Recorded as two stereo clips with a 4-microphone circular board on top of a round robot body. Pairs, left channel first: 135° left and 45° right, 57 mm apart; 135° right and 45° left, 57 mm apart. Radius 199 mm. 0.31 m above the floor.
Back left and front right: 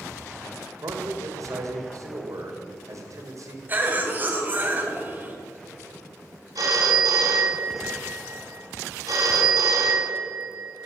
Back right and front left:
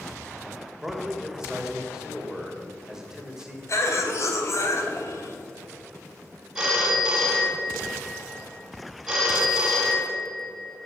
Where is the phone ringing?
35° right, 2.5 m.